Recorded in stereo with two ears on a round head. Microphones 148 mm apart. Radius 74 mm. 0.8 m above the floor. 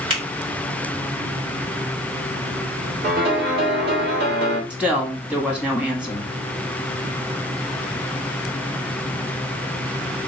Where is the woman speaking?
5° right (ahead or behind), 1.4 m.